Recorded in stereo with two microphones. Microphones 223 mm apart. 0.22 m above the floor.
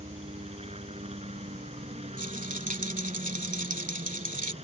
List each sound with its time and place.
0.0 s a helicopter: 25° right (ahead or behind)
2.2 s a rattle: 35° right (ahead or behind)